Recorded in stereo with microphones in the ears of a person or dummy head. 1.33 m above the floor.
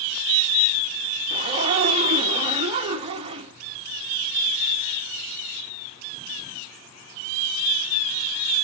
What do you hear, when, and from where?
1.3 s a zipper: 35° right (ahead or behind), 1.3 m